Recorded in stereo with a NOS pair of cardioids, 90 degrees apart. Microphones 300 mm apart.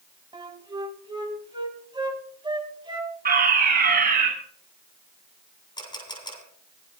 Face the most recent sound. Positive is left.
turn(degrees=15)